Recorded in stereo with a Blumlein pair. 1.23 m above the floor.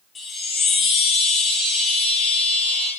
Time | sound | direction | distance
0.1 | a chime | 15° left | 3 m